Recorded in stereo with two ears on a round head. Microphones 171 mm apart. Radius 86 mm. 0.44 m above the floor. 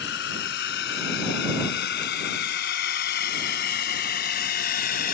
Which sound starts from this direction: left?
A drone, at 0.0 s.